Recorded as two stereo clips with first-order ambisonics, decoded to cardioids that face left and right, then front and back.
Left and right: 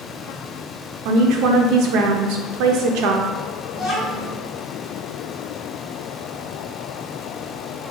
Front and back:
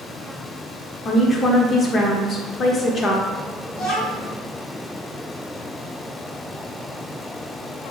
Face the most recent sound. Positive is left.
turn(degrees=0)